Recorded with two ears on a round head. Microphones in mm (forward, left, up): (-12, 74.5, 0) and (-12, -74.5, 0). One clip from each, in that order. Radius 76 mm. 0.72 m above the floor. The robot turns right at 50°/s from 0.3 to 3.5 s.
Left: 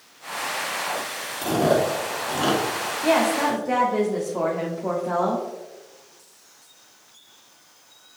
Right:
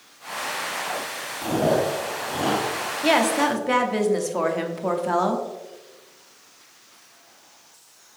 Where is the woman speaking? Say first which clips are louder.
Right 1 dB; 65° right (ahead or behind), 1.0 m; by 5.5 s 50° right (ahead or behind), 1.0 m.